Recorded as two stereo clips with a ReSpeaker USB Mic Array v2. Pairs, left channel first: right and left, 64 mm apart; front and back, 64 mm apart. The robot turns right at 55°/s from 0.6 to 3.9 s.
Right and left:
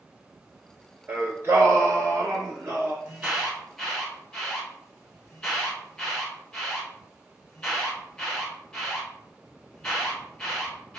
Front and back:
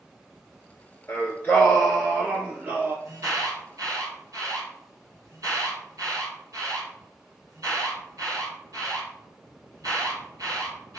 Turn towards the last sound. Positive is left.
turn(degrees=-165)